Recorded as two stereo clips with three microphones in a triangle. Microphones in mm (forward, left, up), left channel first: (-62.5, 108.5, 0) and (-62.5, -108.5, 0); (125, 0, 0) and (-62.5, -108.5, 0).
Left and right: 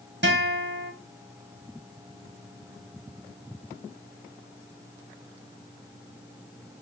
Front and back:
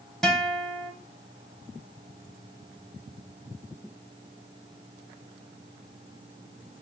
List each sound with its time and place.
0.2 s a guitar: 55° right, 1.6 m